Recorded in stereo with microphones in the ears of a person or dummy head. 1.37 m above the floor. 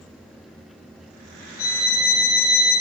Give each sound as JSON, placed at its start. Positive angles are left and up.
{"t": 1.6, "sound": "a violin", "side_deg": 55, "distance_m": 1.5}